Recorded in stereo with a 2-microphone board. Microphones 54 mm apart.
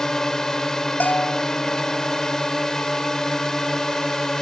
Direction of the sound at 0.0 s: 10° left (ahead or behind).